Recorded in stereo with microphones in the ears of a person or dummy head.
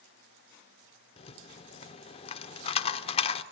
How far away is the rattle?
About 0.6 m.